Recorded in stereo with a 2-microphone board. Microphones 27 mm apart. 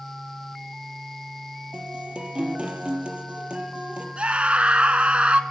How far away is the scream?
About 1.9 m.